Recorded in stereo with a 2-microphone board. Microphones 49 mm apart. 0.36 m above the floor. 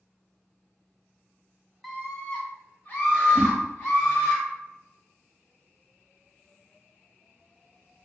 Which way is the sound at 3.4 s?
40° right (ahead or behind).